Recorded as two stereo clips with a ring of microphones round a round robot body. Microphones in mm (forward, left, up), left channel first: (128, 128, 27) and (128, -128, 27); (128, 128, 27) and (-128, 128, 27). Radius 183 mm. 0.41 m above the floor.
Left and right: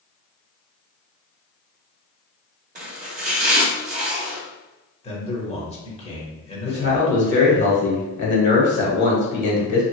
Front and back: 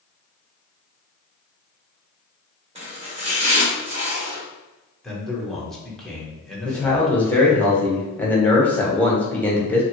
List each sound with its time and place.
2.8 s chopping: 125° right, 0.6 m
5.0 s a man speaking: 85° left, 1.0 m
6.7 s a man speaking: 80° left, 1.2 m